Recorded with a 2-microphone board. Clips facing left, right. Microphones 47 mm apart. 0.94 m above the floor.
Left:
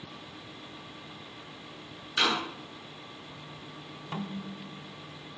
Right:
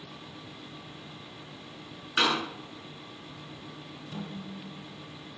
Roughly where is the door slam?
Right.